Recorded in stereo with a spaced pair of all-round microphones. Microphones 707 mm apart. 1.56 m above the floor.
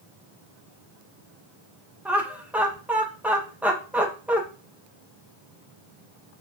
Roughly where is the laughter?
Centre.